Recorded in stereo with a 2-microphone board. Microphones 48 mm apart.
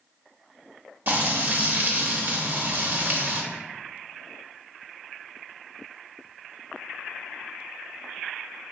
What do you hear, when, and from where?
1.1 s frying: 40° right (ahead or behind), 0.6 m